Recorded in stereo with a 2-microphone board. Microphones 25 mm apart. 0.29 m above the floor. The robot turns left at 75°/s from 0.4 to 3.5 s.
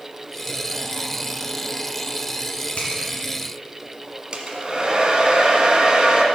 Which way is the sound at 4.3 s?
40° right (ahead or behind).